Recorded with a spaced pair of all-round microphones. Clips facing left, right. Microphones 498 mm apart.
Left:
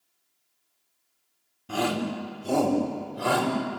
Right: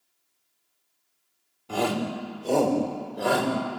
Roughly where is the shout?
Left.